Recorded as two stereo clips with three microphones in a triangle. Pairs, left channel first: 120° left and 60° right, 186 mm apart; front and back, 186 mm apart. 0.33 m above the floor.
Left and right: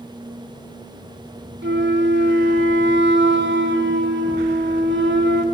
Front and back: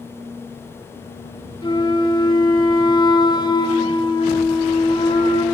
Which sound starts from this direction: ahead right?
A flute, at 1.6 s.